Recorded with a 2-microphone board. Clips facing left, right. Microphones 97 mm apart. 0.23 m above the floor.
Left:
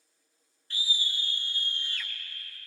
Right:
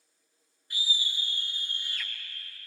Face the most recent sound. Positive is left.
turn(degrees=-10)  # may be behind; listen again after turning